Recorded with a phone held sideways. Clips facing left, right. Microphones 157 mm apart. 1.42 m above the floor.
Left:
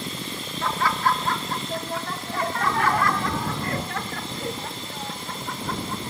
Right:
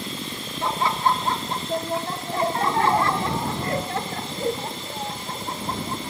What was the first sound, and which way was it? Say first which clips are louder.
Laughter: right 1 dB; 25° right (ahead or behind).